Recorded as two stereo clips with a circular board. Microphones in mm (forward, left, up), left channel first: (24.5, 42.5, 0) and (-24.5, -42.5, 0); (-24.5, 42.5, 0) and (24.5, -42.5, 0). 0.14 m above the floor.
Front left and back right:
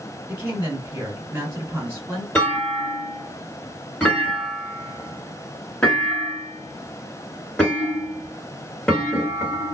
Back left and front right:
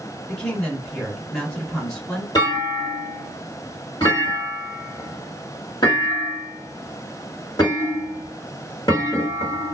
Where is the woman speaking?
170° right, 1.9 m.